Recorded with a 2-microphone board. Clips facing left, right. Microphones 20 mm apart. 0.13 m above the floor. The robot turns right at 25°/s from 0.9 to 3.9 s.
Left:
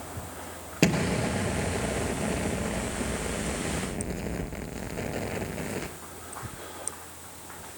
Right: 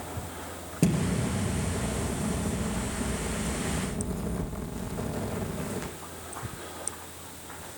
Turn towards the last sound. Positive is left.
turn(degrees=130)